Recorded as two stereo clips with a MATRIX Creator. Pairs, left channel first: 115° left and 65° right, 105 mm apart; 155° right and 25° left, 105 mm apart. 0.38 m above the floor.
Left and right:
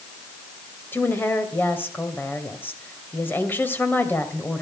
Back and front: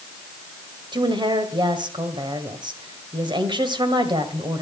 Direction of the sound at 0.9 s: 45° left.